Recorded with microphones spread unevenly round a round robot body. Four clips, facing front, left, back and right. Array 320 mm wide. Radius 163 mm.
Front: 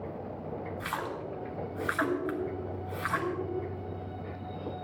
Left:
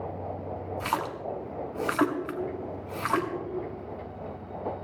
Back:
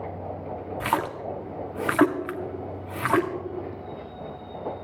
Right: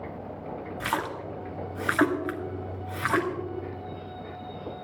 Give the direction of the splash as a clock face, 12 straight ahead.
6 o'clock.